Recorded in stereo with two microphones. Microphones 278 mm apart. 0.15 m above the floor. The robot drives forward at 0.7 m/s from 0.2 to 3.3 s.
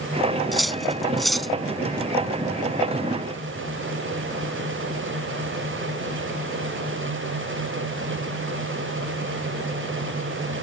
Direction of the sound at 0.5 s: Centre (ahead or behind).